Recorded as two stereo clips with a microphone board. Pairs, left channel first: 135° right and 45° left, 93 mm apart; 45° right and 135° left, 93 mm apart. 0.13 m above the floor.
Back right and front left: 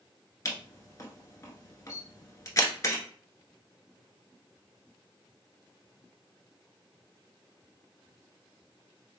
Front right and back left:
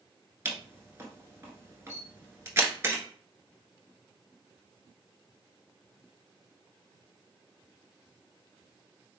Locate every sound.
0.5 s a camera shutter: 175° right, 1.1 m